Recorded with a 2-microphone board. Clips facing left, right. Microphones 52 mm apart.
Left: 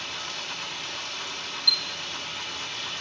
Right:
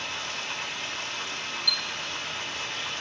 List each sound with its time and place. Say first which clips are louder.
0.0 s running water: right 2 dB; 35° right (ahead or behind), 3 m
1.7 s a chime: left 3 dB; 10° right (ahead or behind), 0.5 m